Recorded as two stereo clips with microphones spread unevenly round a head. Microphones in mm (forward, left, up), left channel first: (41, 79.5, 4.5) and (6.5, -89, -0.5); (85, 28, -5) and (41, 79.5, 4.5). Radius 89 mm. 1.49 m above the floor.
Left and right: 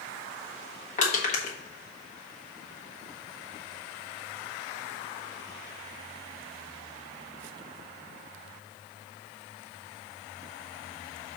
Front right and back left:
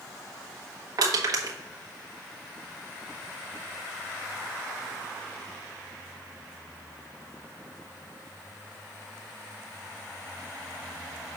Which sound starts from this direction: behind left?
Crushing, at 1.0 s.